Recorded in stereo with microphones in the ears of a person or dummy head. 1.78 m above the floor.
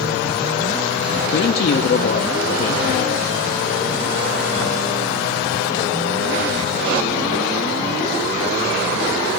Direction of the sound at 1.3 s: 45° left (ahead or behind).